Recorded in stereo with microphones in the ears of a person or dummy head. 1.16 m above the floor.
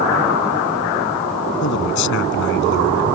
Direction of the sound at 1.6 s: 70° left (ahead or behind).